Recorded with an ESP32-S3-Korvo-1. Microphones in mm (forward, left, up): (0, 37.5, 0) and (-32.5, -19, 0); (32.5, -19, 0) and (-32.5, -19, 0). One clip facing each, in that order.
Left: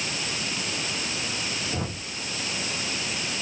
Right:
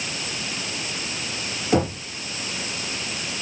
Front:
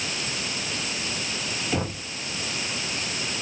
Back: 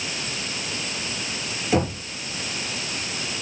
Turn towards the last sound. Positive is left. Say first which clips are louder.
# right 11 dB, back 7 dB
turn(degrees=-110)